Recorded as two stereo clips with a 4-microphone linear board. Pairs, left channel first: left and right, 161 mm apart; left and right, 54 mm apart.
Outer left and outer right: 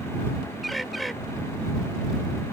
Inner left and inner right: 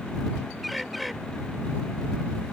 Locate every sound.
0.6 s a bird: centre (ahead or behind)